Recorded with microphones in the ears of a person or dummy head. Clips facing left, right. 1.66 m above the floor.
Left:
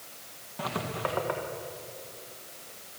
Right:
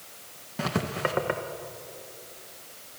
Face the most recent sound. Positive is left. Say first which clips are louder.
# right 4 dB
turn(degrees=-35)  # may be behind; listen again after turning